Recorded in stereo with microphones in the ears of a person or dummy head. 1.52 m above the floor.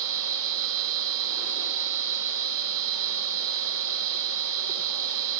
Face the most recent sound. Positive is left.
turn(degrees=-70)  # may be behind; listen again after turning